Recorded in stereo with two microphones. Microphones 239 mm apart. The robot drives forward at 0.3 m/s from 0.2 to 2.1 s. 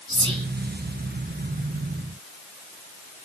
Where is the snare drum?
I don't hear a snare drum.